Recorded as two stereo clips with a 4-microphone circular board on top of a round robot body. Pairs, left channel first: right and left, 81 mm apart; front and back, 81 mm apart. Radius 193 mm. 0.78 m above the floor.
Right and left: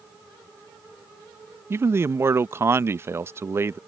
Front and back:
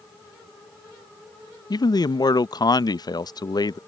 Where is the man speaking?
35° left.